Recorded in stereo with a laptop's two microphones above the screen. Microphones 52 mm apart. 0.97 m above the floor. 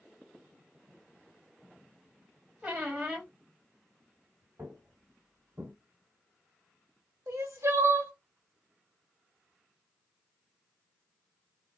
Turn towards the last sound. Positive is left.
turn(degrees=-70)  # may be behind; listen again after turning